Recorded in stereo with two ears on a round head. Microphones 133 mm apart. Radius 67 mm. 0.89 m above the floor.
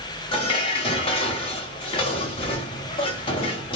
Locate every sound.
0.3 s dishes clattering: 35° left (ahead or behind), 0.9 m